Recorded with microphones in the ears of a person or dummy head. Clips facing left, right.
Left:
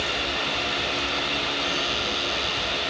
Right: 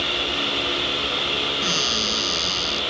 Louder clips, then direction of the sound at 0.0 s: Right 2 dB; 50° right (ahead or behind).